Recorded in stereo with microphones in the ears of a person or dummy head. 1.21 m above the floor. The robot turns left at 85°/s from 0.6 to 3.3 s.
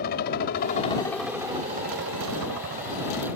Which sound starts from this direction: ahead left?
A helicopter, at 0.0 s.